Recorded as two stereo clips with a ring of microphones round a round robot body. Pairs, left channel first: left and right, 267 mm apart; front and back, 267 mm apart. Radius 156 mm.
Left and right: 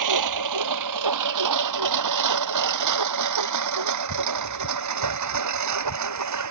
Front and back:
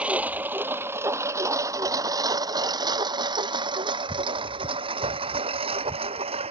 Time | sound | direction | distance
0.0 | a lawn mower | 95° right | ?